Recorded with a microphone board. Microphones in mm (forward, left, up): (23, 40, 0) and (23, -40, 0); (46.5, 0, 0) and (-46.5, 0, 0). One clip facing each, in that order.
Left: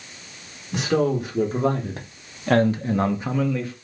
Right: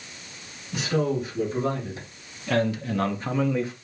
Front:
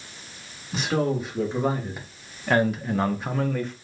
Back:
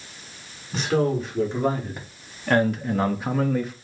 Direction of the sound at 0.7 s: 85° left.